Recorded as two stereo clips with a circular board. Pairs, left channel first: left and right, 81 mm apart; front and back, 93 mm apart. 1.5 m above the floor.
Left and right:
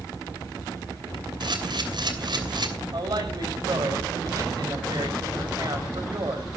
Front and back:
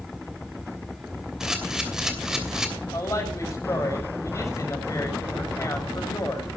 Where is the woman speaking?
55° right, 6.5 m.